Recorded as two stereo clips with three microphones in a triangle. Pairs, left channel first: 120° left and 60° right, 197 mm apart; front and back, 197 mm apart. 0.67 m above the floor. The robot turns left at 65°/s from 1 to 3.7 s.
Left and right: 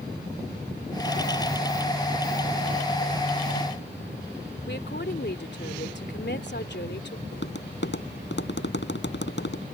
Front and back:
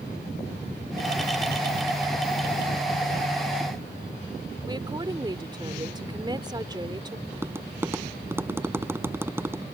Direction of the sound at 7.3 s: 105° left.